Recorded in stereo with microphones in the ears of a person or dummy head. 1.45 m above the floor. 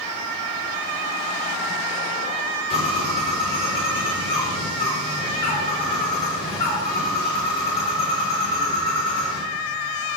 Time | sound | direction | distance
2.7 | a bird | 30° left (ahead or behind) | 5 m